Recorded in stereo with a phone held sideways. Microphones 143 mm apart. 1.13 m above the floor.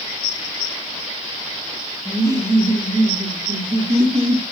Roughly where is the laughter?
Right.